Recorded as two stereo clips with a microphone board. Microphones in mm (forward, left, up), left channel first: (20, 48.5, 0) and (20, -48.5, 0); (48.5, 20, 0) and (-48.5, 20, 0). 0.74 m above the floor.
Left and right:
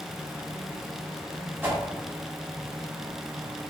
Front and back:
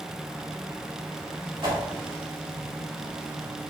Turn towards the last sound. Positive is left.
turn(degrees=-155)